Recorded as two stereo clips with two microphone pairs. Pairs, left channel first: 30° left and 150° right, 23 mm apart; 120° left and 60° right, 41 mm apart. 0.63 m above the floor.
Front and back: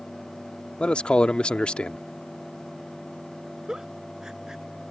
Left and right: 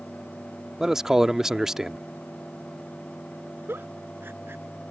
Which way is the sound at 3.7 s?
90° right.